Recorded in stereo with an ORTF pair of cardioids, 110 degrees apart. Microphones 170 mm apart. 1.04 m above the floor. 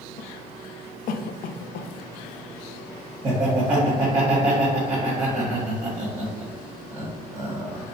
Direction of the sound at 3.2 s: 15° right.